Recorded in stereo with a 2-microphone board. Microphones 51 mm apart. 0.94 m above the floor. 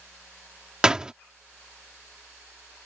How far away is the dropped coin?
No dropped coin in this recording.